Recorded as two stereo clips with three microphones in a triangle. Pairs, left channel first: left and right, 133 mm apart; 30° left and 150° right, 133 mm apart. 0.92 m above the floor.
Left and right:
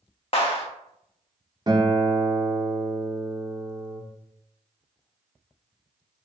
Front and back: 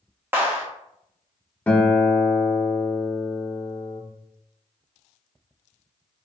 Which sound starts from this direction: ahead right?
A guitar, at 1.7 s.